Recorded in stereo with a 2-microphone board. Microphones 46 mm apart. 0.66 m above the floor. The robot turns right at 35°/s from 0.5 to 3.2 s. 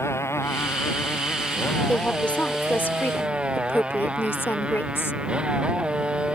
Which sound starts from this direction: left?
A motorcycle, at 0.0 s.